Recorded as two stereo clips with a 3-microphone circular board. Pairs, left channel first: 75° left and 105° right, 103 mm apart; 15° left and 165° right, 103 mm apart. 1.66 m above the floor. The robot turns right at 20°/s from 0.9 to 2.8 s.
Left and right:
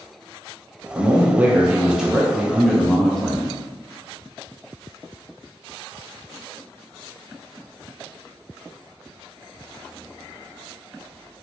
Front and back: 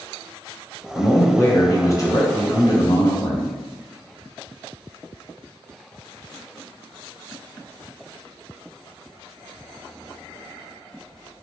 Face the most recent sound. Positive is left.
turn(degrees=-10)